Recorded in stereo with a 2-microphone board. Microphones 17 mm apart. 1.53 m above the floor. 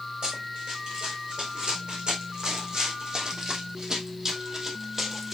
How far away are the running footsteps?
About 5.5 m.